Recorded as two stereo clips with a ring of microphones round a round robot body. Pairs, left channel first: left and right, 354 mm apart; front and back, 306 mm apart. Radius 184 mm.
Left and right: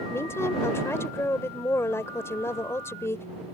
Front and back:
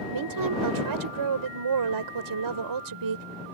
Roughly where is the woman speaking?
Behind.